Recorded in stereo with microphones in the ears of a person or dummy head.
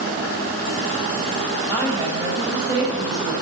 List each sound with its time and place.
1.7 s a woman speaking: 25° right (ahead or behind), 5.5 m